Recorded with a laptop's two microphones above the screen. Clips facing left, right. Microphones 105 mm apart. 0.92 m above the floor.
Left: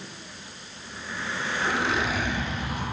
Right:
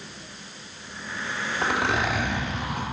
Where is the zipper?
75° right (ahead or behind), 2 m.